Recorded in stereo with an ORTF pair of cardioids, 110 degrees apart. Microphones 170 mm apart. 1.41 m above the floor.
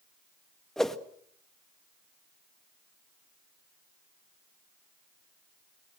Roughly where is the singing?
No singing in this recording.